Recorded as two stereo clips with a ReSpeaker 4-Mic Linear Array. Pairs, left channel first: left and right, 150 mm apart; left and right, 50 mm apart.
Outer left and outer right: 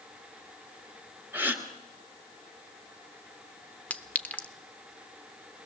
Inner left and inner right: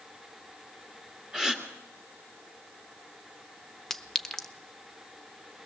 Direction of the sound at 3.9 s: 10° left (ahead or behind).